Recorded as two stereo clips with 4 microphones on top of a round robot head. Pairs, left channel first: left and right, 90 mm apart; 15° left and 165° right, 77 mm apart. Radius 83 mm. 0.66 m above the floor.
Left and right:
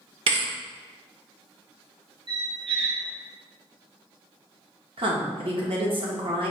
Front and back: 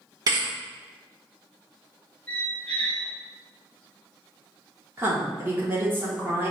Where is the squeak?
65° right, 1.1 m.